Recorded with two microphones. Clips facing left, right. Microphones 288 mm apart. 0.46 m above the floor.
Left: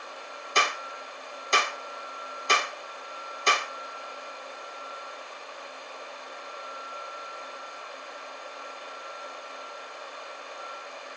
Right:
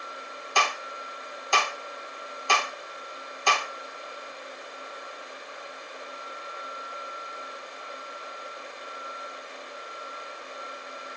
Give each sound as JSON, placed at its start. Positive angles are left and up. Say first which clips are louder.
{"t": 0.6, "sound": "a clap", "louder": "even", "side_deg": 20, "distance_m": 0.8}